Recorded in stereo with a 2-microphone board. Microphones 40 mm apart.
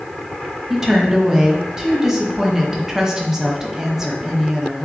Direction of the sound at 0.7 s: 10° right (ahead or behind).